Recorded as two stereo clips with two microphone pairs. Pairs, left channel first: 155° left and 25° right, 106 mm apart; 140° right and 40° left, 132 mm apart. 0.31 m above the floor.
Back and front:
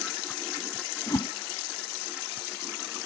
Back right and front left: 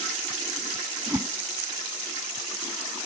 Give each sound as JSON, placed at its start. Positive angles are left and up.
{"t": 1.1, "sound": "a whoosh", "azimuth_deg": 110}